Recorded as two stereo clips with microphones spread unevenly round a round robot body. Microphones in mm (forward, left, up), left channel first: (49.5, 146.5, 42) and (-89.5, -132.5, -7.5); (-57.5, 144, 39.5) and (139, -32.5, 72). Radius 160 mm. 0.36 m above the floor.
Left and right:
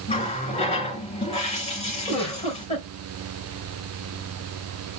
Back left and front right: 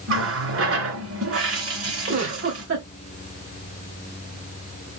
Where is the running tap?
10° right, 3.5 m.